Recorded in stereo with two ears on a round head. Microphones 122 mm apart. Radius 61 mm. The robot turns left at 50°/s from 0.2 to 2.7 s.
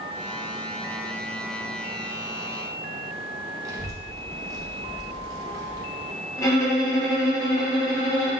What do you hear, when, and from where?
3.6 s a child speaking: 25° right (ahead or behind), 0.9 m
6.4 s a violin: 20° left (ahead or behind), 1.0 m